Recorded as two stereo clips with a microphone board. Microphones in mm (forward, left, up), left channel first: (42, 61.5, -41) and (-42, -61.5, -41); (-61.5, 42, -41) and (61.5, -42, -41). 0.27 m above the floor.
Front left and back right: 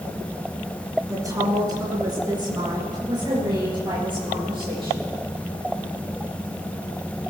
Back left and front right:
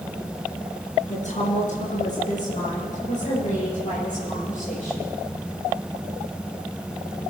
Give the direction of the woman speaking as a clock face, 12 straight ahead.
6 o'clock.